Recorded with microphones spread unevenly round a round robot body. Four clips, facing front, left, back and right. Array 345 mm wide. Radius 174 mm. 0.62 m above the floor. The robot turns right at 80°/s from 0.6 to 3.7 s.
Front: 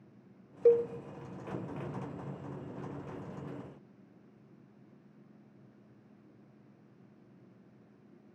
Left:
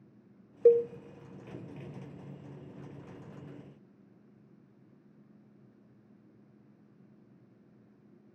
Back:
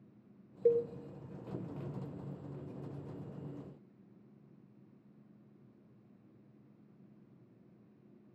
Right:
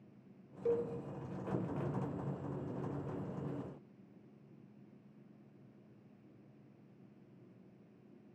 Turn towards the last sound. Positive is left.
turn(degrees=-25)